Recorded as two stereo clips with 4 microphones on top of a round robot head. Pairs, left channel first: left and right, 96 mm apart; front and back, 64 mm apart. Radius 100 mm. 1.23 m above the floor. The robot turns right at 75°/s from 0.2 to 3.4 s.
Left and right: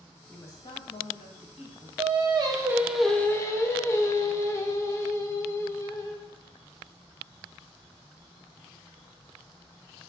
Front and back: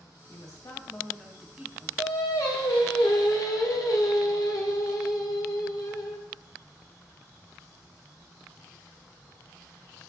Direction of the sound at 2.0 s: 75° right.